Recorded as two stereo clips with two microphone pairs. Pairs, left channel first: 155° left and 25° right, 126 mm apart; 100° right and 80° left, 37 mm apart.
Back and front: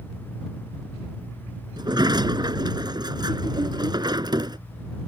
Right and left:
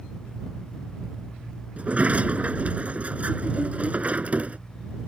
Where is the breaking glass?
I don't hear breaking glass.